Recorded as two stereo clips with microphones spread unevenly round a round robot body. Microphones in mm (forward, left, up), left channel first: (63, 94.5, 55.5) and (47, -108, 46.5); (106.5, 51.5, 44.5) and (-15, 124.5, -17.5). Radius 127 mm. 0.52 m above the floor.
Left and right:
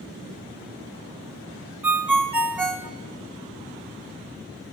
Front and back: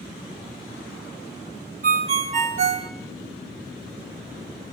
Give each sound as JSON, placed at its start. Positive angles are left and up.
{"t": 1.8, "sound": "a ringtone", "azimuth_deg": -175, "distance_m": 1.7}